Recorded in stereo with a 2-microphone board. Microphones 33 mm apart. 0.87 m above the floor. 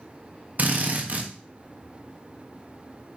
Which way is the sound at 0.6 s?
55° right (ahead or behind).